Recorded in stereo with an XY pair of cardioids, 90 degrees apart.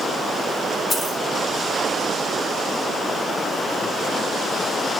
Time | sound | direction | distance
0.9 | a dropped coin | 30° left | 3.5 m